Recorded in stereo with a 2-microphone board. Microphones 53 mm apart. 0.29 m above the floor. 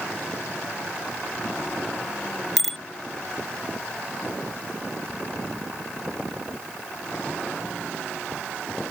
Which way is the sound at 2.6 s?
5° left (ahead or behind).